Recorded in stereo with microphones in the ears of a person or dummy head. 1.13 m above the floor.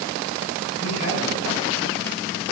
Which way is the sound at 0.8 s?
80° left.